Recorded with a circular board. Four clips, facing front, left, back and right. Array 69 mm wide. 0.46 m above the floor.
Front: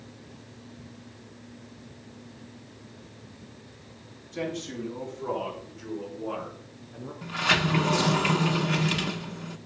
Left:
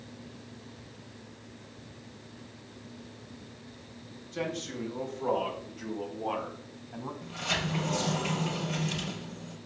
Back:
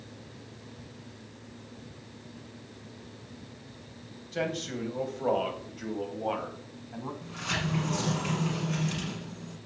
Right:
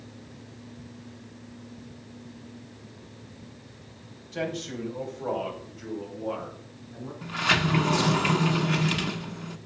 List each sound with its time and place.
4.3 s a man speaking: 145° right, 3.5 m; by 7.1 s 145° left, 4 m
7.2 s a sliding door: 50° right, 0.8 m